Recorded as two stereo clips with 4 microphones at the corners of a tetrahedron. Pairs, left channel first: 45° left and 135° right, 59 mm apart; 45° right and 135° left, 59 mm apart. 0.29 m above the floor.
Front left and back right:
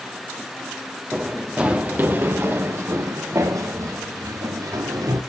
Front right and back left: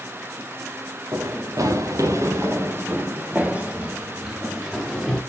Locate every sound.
1.1 s running footsteps: 145° left, 2.5 m; by 5.2 s 140° right, 3.5 m